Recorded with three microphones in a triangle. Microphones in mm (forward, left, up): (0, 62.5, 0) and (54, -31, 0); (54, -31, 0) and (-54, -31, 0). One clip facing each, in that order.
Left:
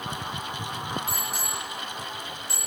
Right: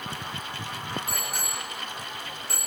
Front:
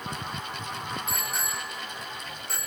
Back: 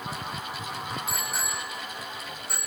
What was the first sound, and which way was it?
A bicycle bell, 90° right.